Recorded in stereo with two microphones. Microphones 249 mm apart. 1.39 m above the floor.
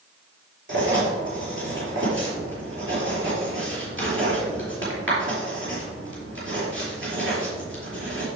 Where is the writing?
50° right (ahead or behind), 5 m.